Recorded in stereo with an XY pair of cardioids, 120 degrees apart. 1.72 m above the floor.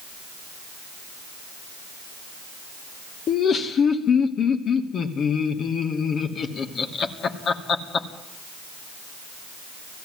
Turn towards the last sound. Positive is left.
turn(degrees=45)